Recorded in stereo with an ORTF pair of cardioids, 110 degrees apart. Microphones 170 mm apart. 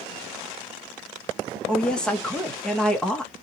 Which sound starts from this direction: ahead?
A woman speaking, at 1.7 s.